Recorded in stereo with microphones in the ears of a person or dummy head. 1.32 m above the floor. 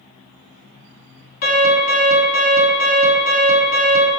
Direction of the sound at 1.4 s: 45° left (ahead or behind).